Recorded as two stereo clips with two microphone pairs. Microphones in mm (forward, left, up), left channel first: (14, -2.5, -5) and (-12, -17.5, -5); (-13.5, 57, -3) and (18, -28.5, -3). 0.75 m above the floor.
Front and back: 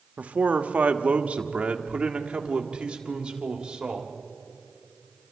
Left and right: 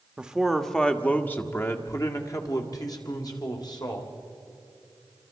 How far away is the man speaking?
About 1.1 m.